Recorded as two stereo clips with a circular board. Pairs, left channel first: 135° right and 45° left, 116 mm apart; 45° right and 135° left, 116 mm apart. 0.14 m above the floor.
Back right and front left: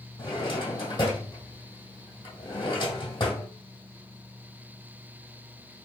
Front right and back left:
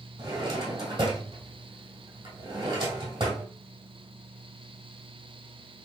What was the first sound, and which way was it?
A drawer, straight behind.